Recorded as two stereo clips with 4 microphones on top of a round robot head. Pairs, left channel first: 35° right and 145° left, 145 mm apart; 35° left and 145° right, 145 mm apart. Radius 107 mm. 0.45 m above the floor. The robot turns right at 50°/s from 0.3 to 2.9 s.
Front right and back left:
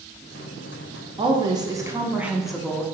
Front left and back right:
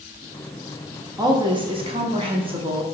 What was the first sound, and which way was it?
A woman speaking, 170° left.